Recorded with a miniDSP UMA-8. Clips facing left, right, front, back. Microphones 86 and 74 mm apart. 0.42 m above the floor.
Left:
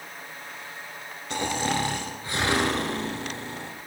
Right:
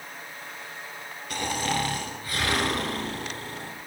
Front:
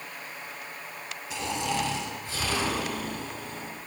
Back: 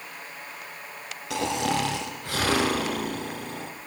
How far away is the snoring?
About 2 m.